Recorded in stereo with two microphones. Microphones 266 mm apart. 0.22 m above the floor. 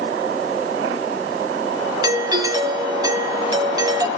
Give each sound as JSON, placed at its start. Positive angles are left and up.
{"t": 2.0, "sound": "a doorbell", "side_deg": -15, "distance_m": 1.6}